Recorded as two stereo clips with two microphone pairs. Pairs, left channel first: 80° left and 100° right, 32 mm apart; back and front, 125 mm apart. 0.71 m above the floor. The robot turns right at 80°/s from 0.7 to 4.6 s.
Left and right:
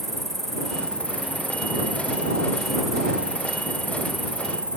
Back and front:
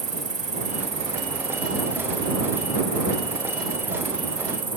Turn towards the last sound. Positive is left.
turn(degrees=-45)